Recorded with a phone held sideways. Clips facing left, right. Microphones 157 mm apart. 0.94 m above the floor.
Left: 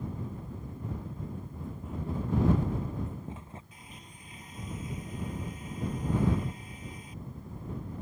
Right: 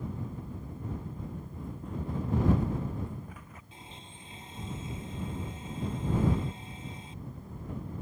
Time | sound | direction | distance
1.3 | running footsteps | 5° right (ahead or behind) | ?
3.7 | a blender | 25° right (ahead or behind) | ?